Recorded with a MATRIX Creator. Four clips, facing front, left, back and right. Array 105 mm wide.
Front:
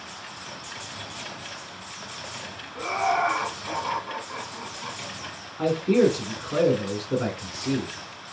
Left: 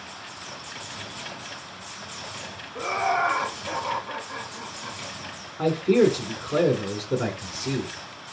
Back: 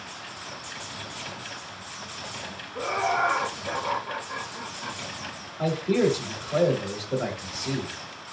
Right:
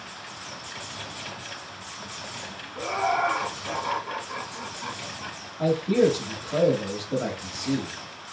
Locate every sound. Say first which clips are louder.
2.8 s laughter: left 1 dB, front 1 dB; 55° left, 1.6 m; by 5.4 s 85° right, 1.7 m
5.6 s a man speaking: left 2 dB, front 3 dB; 55° left, 1.6 m